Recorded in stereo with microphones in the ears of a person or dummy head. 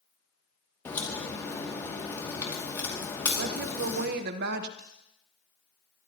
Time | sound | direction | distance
0.8 | a crack | 20° left (ahead or behind) | 2.5 m
3.4 | a woman speaking | 50° right (ahead or behind) | 1.1 m
4.8 | cutlery clinking | 10° left (ahead or behind) | 5 m